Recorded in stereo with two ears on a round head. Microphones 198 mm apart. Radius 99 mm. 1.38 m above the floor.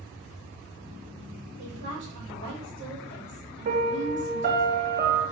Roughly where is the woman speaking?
Right.